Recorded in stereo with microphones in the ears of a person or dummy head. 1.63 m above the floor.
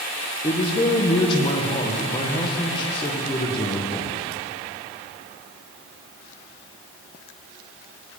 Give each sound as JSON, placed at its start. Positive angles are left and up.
{"t": 0.4, "sound": "a man speaking", "side_deg": 25, "distance_m": 1.4}